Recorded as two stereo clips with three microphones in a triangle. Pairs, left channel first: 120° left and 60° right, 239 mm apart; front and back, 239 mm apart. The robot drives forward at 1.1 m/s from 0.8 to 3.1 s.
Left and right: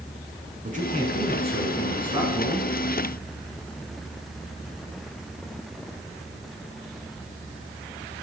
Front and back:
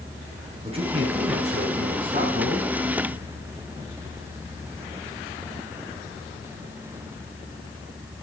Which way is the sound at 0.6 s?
115° right.